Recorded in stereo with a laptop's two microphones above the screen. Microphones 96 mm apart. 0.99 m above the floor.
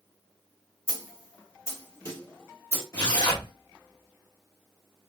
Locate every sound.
0.9 s a snare drum: 30° left (ahead or behind), 1.4 m
2.9 s tearing paper: 35° left (ahead or behind), 1.6 m